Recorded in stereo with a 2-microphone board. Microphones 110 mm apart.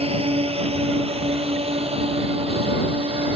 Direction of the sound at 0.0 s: 60° right (ahead or behind).